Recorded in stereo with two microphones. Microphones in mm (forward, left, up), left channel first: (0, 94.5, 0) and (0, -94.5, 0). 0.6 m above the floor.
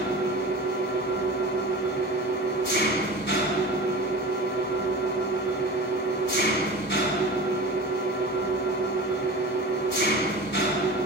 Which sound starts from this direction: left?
An engine running, at 0.0 s.